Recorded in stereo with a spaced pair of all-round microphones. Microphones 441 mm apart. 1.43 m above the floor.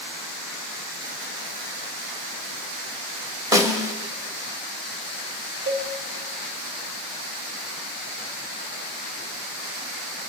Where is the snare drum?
10° right (ahead or behind), 1.4 m.